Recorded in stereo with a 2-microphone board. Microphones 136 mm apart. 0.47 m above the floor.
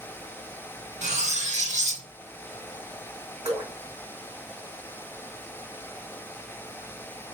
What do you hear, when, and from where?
1.0 s cutlery clinking: 60° right (ahead or behind), 0.7 m
3.5 s dripping: 45° right (ahead or behind), 1.5 m